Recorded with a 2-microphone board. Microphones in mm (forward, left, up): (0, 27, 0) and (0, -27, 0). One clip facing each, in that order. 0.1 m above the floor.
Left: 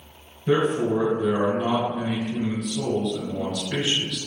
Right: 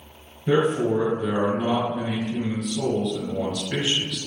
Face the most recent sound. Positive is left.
turn(degrees=-5)  # may be behind; listen again after turning